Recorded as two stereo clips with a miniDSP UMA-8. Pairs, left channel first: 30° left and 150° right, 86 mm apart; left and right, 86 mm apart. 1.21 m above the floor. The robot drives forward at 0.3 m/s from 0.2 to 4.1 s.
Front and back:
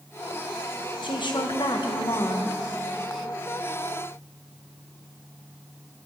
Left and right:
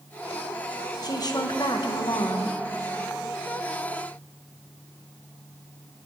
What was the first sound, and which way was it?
A woman speaking, 50° left.